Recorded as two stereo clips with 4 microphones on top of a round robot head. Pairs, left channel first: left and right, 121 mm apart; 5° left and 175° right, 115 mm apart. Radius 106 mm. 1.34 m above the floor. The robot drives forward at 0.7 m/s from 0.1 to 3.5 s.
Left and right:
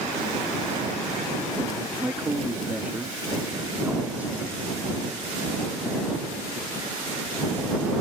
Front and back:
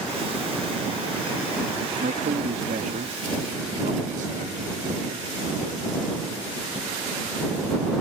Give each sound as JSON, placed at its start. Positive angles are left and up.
{"t": 2.0, "sound": "a man speaking", "azimuth_deg": -165}